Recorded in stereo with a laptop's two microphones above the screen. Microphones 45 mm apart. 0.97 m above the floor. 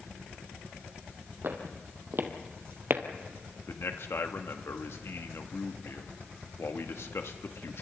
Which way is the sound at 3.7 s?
70° left (ahead or behind).